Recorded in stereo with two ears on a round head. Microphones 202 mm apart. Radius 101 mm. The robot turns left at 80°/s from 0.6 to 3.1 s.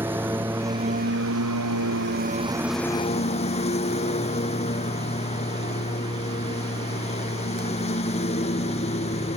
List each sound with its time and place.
0.0 s a lawn mower: 10° right; by 9.4 s 150° left